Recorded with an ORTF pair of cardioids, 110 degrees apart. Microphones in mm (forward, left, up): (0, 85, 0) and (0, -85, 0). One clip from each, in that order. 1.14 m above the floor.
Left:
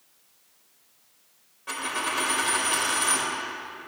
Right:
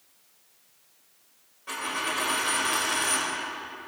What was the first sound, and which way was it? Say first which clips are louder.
A dropped coin: left 1 dB; 20° left.